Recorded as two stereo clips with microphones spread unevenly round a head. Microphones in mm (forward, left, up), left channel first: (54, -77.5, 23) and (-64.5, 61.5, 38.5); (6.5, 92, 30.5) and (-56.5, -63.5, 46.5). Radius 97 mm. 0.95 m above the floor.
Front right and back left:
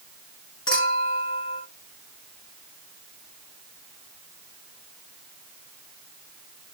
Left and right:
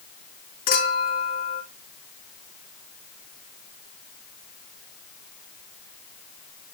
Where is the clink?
20° left, 6 m.